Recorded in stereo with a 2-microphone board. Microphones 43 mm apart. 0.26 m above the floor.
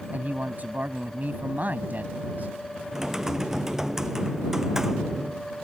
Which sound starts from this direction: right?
A man speaking, at 0.1 s.